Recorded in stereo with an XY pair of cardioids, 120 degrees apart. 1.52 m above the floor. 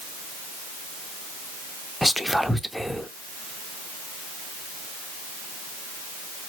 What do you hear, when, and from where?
2.0 s whispering: straight ahead, 0.6 m